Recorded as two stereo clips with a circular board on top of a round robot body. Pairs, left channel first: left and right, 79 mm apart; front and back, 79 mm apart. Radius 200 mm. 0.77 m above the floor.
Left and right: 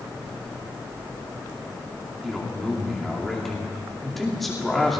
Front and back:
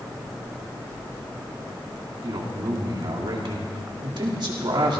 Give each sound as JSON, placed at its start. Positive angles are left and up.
{"t": 2.2, "sound": "a man speaking", "azimuth_deg": 180, "distance_m": 2.5}